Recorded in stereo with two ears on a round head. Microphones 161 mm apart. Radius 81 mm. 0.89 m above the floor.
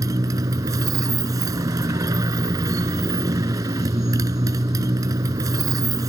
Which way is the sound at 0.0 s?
20° right (ahead or behind).